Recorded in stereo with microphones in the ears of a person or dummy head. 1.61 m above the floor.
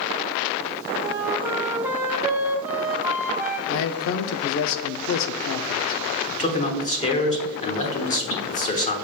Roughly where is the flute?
Centre.